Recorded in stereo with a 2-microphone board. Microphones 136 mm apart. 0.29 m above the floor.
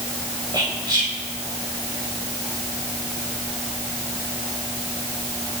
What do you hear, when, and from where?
0.5 s whispering: 35° right (ahead or behind), 1.3 m